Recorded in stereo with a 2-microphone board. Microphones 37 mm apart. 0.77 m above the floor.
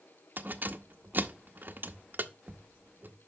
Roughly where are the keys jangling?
Right.